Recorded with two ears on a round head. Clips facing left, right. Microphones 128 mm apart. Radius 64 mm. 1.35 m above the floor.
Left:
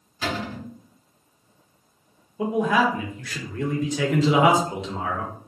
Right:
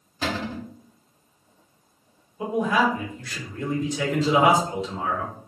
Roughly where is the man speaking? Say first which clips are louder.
Left 1 dB; left.